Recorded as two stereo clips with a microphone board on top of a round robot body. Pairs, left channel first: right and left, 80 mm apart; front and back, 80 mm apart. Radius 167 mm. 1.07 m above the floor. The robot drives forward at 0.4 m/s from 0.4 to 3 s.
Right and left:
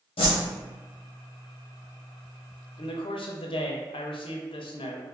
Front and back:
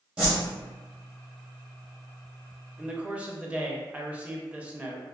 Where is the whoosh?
95° right, 0.5 m.